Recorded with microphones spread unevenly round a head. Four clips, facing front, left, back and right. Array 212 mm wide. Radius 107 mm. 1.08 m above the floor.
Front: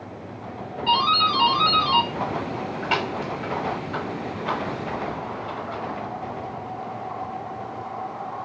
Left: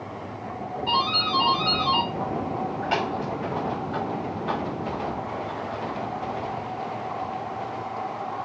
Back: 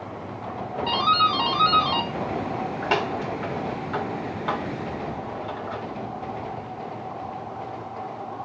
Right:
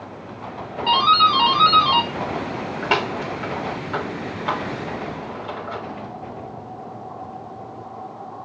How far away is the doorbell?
About 4 m.